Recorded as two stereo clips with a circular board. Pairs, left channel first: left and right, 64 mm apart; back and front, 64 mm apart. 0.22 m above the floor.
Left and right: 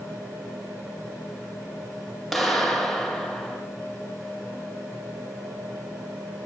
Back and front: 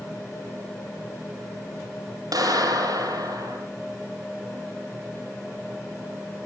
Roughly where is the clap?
Ahead.